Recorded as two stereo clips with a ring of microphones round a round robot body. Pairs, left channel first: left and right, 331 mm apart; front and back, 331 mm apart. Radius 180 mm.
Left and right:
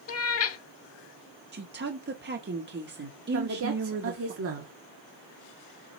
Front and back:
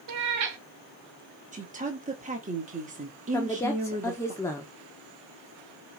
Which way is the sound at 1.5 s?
125° right.